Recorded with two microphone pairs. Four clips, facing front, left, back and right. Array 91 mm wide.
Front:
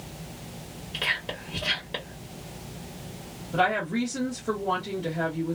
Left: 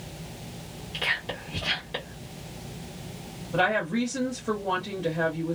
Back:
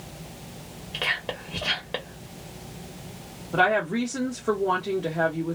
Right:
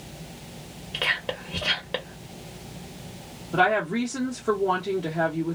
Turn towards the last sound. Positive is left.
turn(degrees=-155)